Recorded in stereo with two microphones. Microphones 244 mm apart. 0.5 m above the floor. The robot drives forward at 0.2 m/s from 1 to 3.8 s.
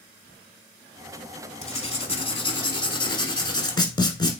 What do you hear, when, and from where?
1.6 s writing: 25° left (ahead or behind), 0.8 m; by 4.4 s 20° left (ahead or behind), 1.2 m